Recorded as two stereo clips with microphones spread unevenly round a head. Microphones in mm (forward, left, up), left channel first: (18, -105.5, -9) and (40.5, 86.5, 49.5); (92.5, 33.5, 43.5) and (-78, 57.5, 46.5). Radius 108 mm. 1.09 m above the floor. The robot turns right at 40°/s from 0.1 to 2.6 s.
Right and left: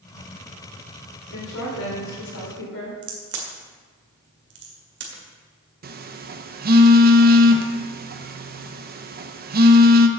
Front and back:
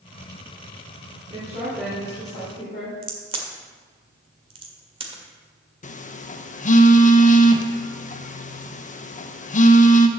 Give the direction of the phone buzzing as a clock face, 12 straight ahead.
11 o'clock.